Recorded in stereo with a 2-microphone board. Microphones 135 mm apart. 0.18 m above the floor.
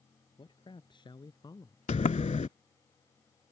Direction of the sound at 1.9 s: 60° left (ahead or behind).